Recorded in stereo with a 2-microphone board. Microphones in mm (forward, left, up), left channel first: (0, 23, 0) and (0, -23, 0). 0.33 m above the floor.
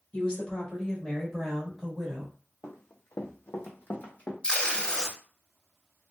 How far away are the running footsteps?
About 0.8 m.